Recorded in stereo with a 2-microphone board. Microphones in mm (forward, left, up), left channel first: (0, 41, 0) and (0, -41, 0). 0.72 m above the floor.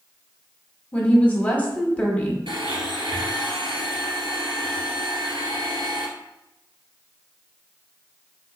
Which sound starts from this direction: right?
A blender, at 2.5 s.